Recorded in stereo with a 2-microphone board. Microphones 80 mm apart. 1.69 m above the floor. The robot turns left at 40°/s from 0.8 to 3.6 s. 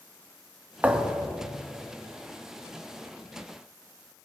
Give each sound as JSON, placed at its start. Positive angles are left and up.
{"t": 0.8, "sound": "a thud", "side_deg": -20, "distance_m": 1.0}